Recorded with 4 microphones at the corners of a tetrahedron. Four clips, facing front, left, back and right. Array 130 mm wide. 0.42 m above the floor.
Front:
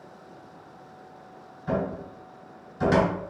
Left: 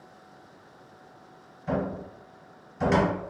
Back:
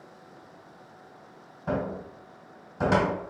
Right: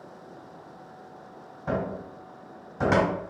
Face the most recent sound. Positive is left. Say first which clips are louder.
# even, front 2 dB
turn(degrees=-125)